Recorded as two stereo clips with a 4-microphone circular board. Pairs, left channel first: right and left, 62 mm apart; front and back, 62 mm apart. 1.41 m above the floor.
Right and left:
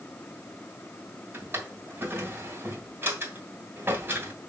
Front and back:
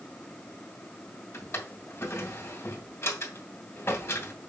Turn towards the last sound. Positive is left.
turn(degrees=40)